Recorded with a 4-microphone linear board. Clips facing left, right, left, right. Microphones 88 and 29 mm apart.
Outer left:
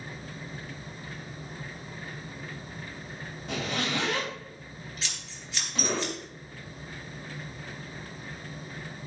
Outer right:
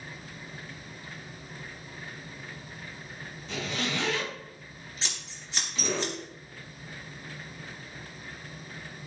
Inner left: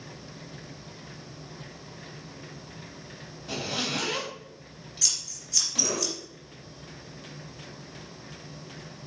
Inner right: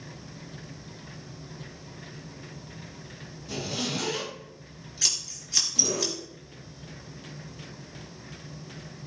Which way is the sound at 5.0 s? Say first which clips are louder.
Even, inner right 2 dB; 30° right (ahead or behind).